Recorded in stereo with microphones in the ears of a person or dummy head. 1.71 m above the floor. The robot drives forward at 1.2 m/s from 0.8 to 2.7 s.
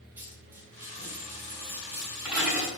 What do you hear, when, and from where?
0.2 s a dropped coin: 15° right (ahead or behind), 3.5 m; by 2.7 s 10° right (ahead or behind), 5.5 m